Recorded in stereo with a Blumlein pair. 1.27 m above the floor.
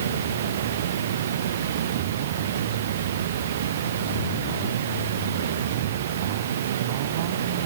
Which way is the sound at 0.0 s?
60° right.